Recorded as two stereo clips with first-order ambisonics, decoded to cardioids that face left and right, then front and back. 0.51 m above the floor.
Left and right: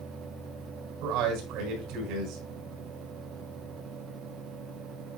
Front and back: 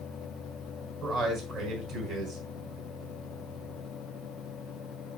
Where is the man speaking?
125° right, 4.5 m.